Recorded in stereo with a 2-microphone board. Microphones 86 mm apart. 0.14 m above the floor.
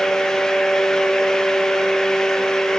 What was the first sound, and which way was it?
Only background noise.